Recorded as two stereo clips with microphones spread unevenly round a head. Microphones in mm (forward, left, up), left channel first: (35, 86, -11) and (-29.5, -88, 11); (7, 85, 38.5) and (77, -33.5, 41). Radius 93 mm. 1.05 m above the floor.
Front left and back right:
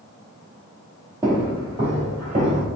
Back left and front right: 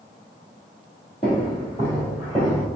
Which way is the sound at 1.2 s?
Straight behind.